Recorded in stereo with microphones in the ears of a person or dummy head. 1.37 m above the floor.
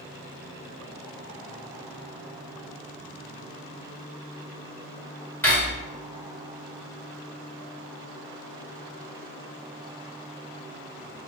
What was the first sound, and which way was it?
Cutlery clinking, 10° left (ahead or behind).